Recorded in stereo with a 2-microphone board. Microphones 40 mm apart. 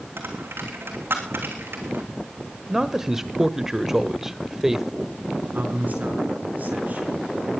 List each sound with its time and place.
0.2 s a dropped coin: 70° right (ahead or behind), 3 m
2.7 s a man speaking: 10° right (ahead or behind), 1.0 m
5.5 s a man speaking: 45° right (ahead or behind), 4.5 m